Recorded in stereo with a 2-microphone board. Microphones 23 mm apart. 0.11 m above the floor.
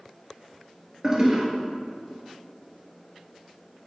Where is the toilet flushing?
30° right (ahead or behind), 1.5 m.